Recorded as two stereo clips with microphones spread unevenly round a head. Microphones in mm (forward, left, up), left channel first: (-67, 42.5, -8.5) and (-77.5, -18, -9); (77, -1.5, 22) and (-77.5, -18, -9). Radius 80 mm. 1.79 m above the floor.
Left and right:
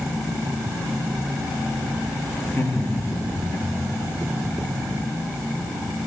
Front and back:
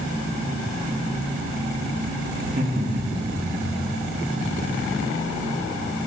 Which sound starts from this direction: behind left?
Laughter, at 2.4 s.